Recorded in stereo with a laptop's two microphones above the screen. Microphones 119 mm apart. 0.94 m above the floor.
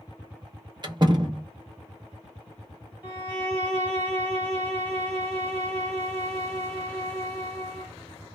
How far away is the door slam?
About 0.6 m.